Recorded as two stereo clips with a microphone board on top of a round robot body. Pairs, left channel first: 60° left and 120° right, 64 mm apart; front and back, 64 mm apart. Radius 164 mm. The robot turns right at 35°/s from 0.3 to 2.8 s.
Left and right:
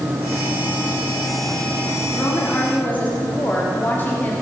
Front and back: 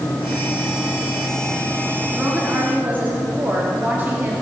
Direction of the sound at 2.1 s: 95° left.